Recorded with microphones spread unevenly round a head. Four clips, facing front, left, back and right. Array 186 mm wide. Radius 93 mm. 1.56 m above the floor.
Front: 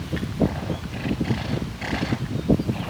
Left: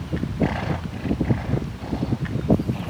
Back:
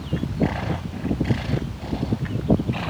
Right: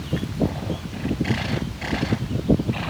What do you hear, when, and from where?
Only background noise.